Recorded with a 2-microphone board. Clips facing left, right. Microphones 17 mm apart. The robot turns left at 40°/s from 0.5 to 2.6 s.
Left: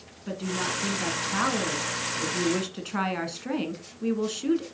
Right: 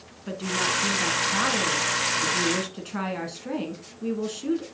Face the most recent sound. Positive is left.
turn(degrees=15)  # may be behind; listen again after turning